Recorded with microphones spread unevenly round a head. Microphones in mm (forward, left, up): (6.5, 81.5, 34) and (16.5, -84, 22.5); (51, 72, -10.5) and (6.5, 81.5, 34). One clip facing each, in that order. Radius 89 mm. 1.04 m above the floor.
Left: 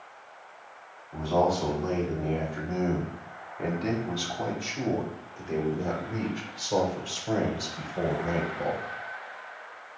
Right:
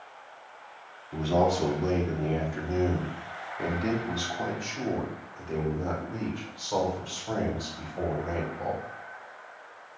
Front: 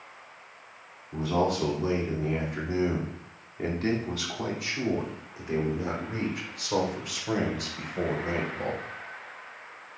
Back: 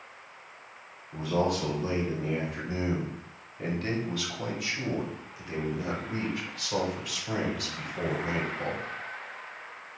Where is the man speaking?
40° right, 3 m; by 8.8 s 40° left, 5 m.